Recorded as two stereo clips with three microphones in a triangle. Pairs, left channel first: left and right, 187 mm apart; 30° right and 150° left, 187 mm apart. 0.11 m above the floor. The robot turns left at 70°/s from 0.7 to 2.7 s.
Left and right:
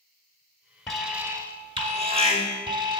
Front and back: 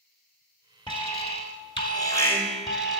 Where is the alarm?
5° left, 1.1 m; by 3.0 s 125° right, 1.1 m.